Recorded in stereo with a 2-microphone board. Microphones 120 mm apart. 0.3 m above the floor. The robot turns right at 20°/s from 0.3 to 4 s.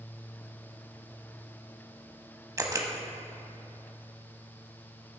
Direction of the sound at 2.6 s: 25° right (ahead or behind).